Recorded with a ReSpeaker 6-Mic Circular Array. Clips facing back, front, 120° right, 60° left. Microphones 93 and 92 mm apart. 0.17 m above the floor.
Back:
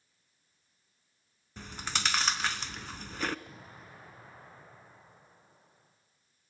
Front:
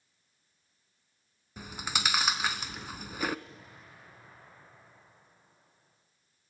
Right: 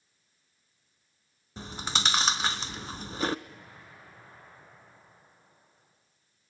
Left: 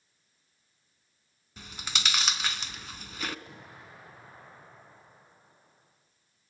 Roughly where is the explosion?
Behind left.